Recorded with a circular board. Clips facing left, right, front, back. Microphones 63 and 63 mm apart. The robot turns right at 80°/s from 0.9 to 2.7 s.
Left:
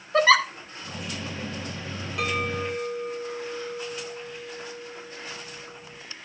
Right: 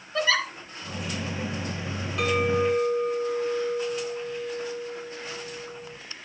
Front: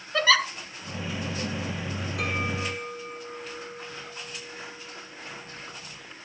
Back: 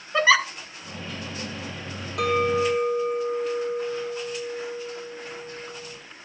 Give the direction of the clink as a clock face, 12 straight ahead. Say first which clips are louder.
Right 5 dB, back 10 dB; 6 o'clock.